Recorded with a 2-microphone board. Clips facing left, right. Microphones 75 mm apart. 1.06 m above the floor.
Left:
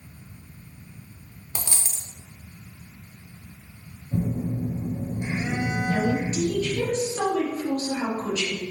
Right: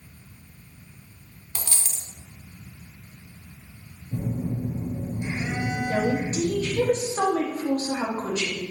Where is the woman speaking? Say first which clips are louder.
Right 1 dB; 40° right (ahead or behind), 1.0 m.